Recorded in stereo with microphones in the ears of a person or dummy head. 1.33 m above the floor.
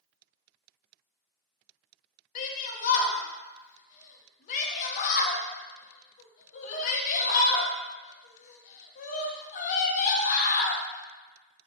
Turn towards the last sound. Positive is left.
turn(degrees=50)  # may be behind; listen again after turning